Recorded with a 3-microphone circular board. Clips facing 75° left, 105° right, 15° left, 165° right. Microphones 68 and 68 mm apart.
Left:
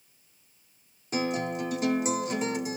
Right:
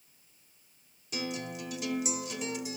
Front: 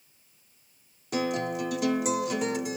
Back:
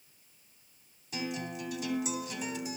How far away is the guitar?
About 1.4 m.